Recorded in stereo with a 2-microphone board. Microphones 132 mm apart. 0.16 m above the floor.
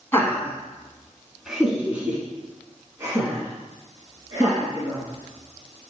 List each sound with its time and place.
0.1 s laughter: 20° left (ahead or behind), 1.6 m; by 5.9 s 35° right (ahead or behind), 3.5 m